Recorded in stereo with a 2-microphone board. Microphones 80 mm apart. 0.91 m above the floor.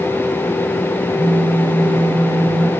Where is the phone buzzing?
75° right (ahead or behind), 0.6 m.